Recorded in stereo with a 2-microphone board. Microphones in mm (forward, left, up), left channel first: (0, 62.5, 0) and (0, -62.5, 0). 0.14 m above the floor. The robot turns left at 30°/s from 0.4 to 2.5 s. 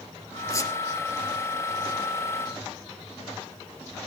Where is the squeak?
25° left (ahead or behind), 1.9 m; by 0.7 s 20° left (ahead or behind), 1.9 m.